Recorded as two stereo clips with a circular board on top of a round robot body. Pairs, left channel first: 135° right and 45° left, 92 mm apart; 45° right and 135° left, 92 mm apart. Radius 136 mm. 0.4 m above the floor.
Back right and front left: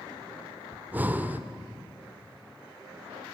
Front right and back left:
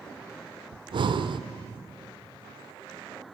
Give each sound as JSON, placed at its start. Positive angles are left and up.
{"t": 0.7, "sound": "breathing", "azimuth_deg": 115, "distance_m": 0.8}